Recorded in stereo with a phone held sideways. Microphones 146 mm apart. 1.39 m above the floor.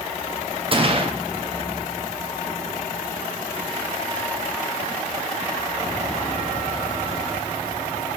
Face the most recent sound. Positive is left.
turn(degrees=-35)  # may be behind; listen again after turning